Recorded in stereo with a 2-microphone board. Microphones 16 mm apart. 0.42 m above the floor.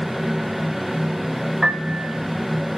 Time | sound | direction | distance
1.6 | a piano | 30° right (ahead or behind) | 0.6 m